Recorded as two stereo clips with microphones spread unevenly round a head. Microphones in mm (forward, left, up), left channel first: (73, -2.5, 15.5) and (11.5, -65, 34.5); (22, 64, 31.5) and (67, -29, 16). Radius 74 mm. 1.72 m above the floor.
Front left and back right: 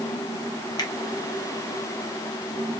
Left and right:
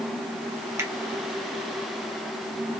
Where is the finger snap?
Straight ahead, 1.5 m.